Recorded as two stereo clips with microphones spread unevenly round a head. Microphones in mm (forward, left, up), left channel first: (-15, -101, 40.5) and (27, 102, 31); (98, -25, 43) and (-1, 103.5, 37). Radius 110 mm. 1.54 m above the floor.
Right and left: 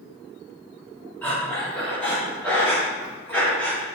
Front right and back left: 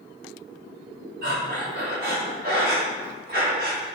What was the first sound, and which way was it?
Breathing, 175° left.